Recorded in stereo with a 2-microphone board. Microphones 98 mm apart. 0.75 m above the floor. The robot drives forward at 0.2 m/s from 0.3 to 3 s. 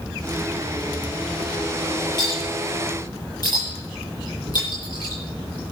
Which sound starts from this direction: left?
A clink, at 2.2 s.